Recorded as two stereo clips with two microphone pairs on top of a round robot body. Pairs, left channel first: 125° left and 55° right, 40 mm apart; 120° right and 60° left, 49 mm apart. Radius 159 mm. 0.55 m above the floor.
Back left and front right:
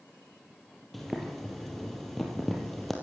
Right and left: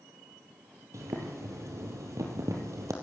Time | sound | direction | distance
0.9 | boiling | 40° left | 3.5 m